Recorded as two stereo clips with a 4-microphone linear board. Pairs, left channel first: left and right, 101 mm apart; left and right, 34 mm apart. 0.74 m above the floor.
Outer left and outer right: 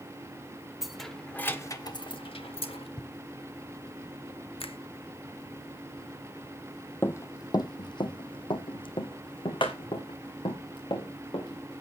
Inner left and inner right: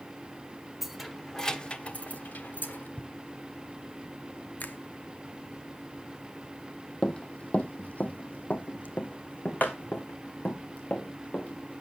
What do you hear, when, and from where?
0.8 s keys jangling: 5° right (ahead or behind), 1.5 m; by 2.9 s 85° left, 1.5 m
3.0 s footsteps: 55° left (ahead or behind), 1.1 m; by 4.1 s 35° left (ahead or behind), 1.2 m
4.6 s a finger snap: 70° left (ahead or behind), 0.8 m
7.0 s running footsteps: 25° left (ahead or behind), 0.9 m; by 11.8 s 55° left (ahead or behind), 3.5 m